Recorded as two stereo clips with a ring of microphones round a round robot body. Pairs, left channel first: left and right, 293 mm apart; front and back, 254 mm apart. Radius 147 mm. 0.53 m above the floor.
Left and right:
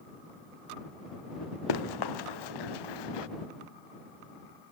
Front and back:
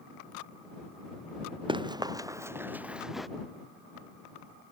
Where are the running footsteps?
105° left; by 3.3 s 90° left.